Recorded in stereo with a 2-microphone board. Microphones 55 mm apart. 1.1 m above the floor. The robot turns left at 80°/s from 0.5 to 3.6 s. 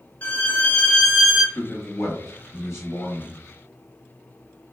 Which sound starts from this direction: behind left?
A man speaking, at 1.6 s.